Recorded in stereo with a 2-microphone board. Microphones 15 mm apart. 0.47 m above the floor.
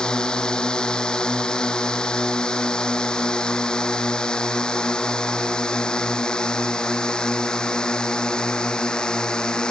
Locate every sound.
0.0 s a drone: 80° left